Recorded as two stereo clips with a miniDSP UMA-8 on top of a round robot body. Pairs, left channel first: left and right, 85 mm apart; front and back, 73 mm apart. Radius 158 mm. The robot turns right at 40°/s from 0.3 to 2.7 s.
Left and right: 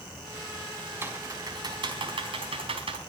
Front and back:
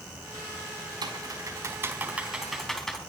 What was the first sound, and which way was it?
Typing on a keyboard, 155° right.